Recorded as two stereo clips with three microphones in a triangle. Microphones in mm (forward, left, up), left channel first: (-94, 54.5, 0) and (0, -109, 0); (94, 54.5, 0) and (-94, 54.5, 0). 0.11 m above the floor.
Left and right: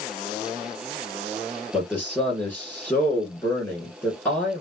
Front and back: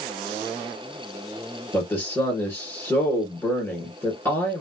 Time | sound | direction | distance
1.7 | a man speaking | 55° left | 1.4 m